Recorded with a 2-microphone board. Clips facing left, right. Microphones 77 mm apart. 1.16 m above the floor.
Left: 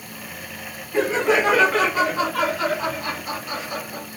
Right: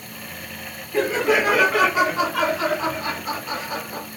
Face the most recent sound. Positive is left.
turn(degrees=-40)  # may be behind; listen again after turning